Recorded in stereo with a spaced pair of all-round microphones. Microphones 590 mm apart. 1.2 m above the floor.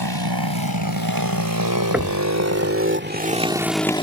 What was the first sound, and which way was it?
A motorcycle, 40° right (ahead or behind).